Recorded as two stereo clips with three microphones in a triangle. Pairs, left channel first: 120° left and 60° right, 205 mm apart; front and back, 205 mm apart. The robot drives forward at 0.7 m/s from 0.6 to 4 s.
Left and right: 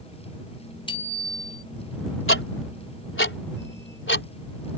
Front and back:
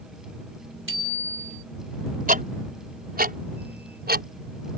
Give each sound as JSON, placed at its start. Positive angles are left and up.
{"t": 0.9, "sound": "a bicycle bell", "azimuth_deg": -175}
{"t": 2.3, "sound": "ticking", "azimuth_deg": 130}